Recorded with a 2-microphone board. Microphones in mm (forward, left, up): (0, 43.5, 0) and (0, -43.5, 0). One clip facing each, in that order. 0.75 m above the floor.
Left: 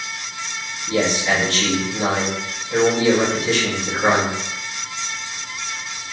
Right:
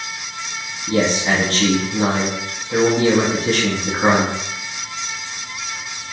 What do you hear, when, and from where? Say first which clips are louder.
0.9 s a man speaking: right 2 dB; 40° right (ahead or behind), 1.1 m